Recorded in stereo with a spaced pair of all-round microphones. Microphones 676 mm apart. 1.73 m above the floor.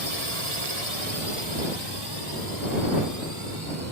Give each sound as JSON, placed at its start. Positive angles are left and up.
{"t": 0.0, "sound": "a drone", "side_deg": -55}